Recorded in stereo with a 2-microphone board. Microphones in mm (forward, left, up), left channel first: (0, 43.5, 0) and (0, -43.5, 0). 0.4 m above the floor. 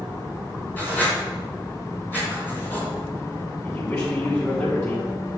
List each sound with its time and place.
0.8 s writing: 20° left (ahead or behind), 4 m
3.6 s a man speaking: 30° left (ahead or behind), 3 m